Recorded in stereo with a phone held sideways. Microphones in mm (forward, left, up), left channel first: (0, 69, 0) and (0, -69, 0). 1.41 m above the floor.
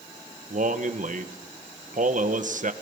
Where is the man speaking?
70° right (ahead or behind), 1.5 m.